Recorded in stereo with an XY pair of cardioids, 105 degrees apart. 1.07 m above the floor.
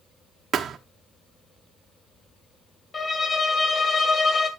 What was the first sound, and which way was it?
A thud, 55° right.